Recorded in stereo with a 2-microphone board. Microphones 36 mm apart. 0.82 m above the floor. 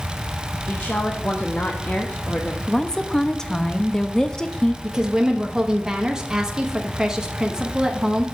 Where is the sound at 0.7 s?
45° left (ahead or behind), 0.8 m.